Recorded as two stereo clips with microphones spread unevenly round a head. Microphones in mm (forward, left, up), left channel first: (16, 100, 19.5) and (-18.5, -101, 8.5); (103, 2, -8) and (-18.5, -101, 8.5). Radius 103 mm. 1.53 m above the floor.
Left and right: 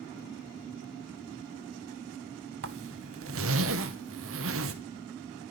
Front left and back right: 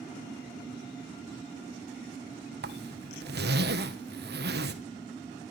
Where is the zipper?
125° right, 1.6 m.